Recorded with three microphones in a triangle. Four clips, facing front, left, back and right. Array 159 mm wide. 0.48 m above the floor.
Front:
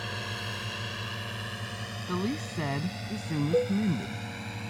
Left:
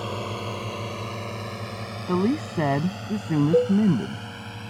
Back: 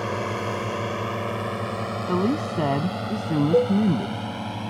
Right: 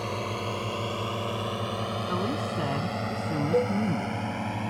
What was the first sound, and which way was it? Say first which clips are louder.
A drone: left 1 dB, back 11 dB; 170° left.